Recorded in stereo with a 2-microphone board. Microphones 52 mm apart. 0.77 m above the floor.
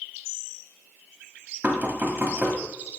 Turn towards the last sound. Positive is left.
turn(degrees=-40)  # may be behind; listen again after turning